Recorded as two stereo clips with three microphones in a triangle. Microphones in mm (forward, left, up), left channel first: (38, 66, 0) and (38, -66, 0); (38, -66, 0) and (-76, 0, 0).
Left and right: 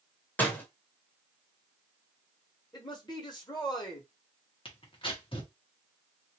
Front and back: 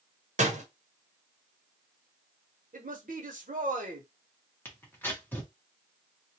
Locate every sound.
0.4 s a door slam: 165° left, 0.9 m
2.7 s a man speaking: 145° left, 1.1 m
4.7 s tearing paper: 45° left, 1.1 m